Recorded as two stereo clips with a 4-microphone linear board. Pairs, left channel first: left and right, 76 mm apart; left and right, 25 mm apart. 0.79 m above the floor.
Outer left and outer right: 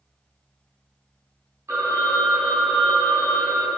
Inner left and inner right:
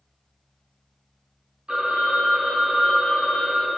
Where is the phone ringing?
40° right (ahead or behind), 0.6 m.